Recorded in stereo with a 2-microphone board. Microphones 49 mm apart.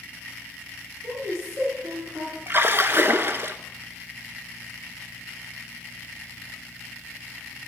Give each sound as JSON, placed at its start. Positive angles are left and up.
{"t": 1.0, "sound": "a woman speaking", "side_deg": -40, "distance_m": 5.5}
{"t": 2.5, "sound": "a splash", "side_deg": -50, "distance_m": 0.6}